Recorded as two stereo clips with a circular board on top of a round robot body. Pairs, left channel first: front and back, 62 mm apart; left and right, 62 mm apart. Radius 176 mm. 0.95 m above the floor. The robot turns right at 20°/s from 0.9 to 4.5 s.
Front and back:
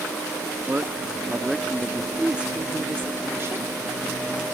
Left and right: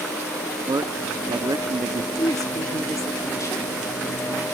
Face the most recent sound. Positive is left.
turn(degrees=150)